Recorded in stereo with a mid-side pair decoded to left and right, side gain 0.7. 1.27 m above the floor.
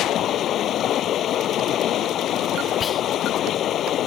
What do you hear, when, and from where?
0.0 s running water: 45° left
2.8 s whispering: 30° left